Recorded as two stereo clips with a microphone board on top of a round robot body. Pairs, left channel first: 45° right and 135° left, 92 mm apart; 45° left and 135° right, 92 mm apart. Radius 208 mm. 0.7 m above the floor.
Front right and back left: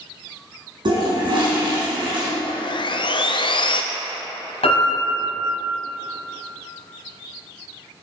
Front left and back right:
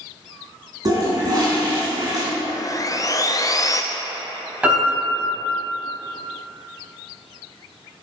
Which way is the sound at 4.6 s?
60° right.